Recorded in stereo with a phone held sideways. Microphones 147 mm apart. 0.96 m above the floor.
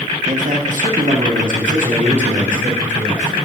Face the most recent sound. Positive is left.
turn(degrees=-60)  # may be behind; listen again after turning